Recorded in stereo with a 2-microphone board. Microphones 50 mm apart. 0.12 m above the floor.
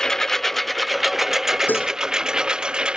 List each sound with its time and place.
0.0 s a lawn mower: 15° left (ahead or behind); by 3.0 s 15° right (ahead or behind)
1.7 s dishes clattering: 35° left (ahead or behind)